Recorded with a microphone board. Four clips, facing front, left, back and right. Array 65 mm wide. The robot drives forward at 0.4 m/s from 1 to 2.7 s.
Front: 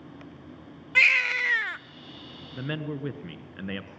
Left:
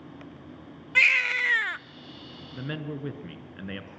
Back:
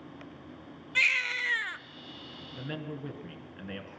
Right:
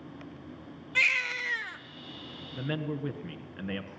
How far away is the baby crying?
About 0.7 m.